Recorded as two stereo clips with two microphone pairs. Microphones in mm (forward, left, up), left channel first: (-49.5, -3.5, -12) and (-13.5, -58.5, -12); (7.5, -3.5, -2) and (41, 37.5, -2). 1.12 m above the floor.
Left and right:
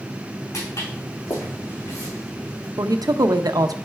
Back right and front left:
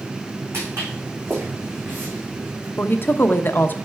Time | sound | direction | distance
0.5 | footsteps | 90° left | 4.5 m
2.8 | a woman speaking | 80° right | 0.8 m